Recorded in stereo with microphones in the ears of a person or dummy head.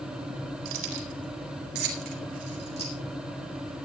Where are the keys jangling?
80° right, 3.5 m; by 2.9 s 25° right (ahead or behind), 3 m.